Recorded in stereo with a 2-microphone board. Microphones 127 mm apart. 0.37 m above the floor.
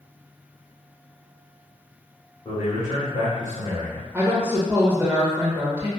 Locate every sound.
2.5 s a man speaking: 45° left (ahead or behind), 1.2 m
4.1 s a woman speaking: 20° right (ahead or behind), 0.8 m